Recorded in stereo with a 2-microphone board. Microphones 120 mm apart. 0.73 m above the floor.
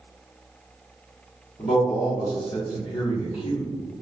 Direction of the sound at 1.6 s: 65° left (ahead or behind).